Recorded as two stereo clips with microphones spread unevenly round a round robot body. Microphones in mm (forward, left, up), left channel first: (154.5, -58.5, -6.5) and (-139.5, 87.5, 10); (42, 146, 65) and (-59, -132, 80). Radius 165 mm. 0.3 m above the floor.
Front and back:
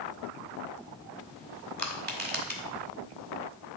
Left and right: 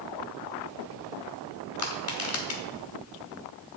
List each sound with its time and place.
1.8 s crushing: 95° left, 1.9 m